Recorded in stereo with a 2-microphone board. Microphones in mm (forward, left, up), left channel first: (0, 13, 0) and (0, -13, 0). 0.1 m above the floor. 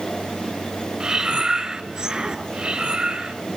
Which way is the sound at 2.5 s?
35° right (ahead or behind).